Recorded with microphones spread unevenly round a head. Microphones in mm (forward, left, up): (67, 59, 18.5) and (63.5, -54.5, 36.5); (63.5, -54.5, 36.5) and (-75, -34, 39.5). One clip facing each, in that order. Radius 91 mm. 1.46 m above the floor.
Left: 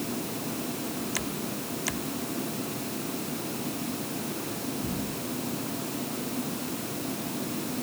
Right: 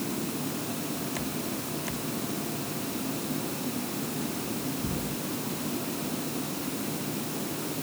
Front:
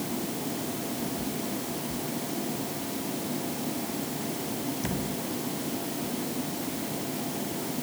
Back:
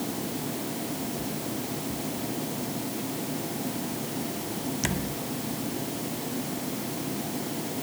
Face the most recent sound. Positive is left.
No sound to turn to.